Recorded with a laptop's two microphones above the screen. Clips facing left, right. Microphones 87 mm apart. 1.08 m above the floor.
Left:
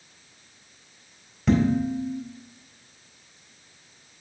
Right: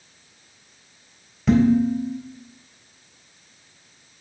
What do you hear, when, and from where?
1.5 s dishes clattering: centre (ahead or behind), 4 m